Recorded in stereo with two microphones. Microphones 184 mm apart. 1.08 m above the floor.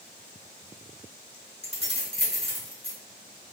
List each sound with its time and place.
1.6 s keys jangling: 70° left (ahead or behind), 0.8 m